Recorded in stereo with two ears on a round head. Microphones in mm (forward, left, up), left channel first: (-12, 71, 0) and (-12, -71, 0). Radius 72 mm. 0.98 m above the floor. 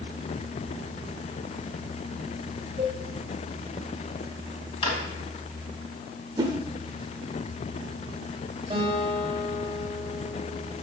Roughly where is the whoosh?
Right.